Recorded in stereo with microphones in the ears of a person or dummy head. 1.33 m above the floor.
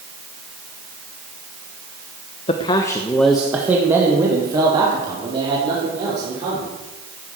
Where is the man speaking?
35° left (ahead or behind), 1.2 m; by 6.7 s 35° right (ahead or behind), 5 m.